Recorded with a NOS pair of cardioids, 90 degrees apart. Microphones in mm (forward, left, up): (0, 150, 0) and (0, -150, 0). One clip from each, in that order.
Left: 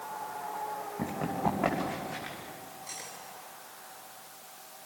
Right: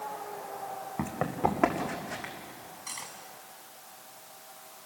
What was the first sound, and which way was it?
Running footsteps, 65° right.